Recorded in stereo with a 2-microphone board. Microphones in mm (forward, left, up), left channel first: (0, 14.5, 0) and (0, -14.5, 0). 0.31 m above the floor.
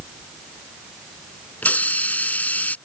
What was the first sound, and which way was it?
A hiss, 70° left (ahead or behind).